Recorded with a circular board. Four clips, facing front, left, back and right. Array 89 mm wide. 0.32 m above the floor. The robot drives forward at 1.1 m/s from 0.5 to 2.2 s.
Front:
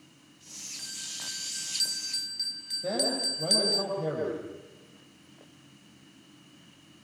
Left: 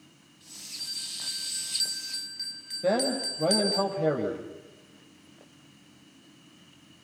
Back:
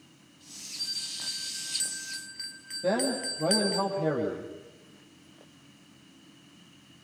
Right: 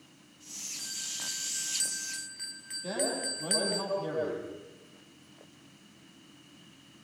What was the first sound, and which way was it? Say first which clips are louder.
A bell: right 2 dB, even; 25° right.